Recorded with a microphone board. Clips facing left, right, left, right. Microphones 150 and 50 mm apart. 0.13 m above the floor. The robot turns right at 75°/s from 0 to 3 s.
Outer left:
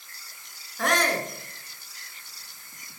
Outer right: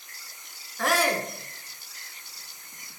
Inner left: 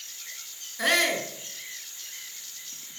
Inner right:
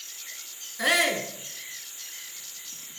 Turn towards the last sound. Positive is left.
turn(degrees=-15)